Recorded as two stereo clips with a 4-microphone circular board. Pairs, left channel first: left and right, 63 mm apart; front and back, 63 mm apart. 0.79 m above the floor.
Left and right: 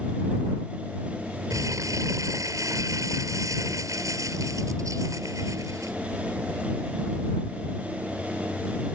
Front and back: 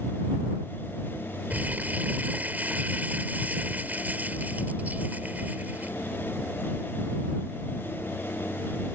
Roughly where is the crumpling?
Behind right.